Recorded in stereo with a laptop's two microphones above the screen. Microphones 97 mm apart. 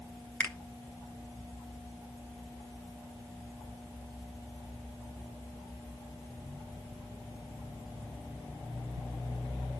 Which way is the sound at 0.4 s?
15° left (ahead or behind).